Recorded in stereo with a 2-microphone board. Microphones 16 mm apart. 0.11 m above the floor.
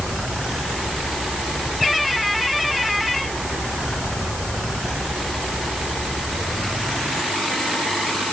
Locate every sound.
Only background noise.